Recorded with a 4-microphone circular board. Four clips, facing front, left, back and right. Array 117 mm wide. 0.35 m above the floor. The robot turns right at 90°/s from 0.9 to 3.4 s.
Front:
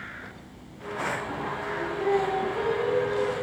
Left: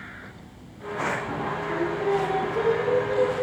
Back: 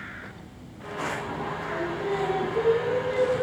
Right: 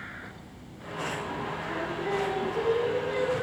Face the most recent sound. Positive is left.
turn(degrees=-130)